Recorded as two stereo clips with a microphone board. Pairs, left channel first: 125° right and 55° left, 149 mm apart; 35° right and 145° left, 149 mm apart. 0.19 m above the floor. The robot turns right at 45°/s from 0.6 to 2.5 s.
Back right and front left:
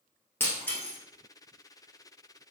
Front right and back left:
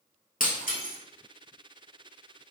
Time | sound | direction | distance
0.4 | breaking glass | 50° right | 1.3 m